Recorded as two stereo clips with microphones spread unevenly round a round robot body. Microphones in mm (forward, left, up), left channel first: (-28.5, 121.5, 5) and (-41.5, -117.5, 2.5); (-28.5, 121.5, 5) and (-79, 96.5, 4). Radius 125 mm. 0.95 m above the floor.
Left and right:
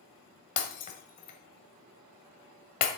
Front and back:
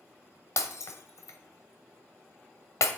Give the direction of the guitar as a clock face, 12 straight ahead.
No guitar in this recording.